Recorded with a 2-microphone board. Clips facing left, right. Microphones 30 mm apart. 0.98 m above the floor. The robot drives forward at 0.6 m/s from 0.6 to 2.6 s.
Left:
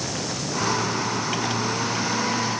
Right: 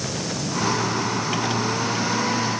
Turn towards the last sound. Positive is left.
No sound to turn to.